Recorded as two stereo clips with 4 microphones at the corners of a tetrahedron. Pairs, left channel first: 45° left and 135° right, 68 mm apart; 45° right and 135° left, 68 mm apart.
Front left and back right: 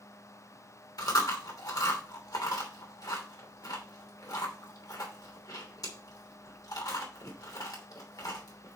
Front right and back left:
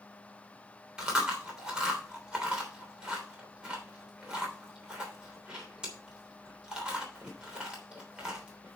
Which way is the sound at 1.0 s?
55° left.